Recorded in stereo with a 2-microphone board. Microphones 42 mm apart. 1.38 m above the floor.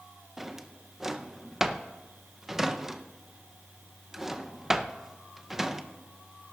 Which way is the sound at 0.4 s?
10° right (ahead or behind).